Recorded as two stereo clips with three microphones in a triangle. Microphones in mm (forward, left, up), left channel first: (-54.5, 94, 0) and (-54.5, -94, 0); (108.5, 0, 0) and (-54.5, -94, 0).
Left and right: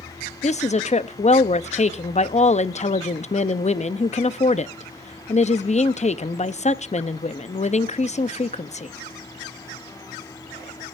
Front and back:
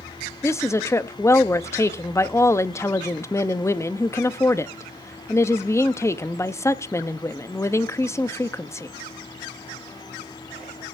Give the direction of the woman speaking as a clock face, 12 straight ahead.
9 o'clock.